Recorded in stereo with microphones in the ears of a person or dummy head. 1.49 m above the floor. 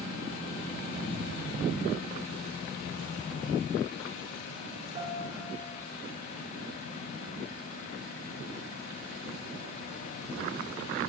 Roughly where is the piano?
Right.